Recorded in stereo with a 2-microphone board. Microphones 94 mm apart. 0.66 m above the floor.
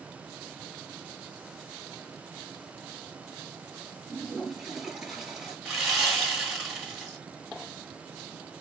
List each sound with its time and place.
4.1 s a toilet flushing: 5° right (ahead or behind), 1.9 m
5.7 s sawing: 5° right (ahead or behind), 1.6 m